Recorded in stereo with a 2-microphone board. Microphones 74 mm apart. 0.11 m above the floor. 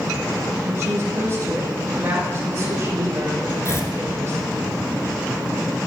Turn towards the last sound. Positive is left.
turn(degrees=40)  # may be behind; listen again after turning